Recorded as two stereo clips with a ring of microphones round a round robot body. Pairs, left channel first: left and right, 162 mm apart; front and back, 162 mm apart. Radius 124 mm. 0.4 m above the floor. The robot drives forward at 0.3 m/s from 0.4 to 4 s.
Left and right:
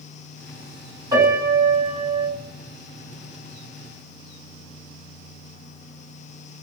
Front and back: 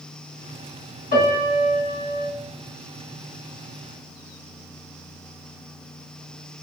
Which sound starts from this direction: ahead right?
A piano, at 1.1 s.